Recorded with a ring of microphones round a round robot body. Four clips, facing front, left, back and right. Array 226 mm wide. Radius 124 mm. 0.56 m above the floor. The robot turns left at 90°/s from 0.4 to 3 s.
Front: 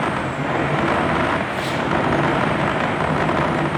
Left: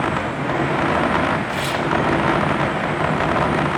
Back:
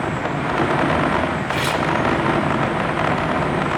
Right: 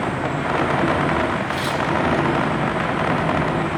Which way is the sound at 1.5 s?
175° left.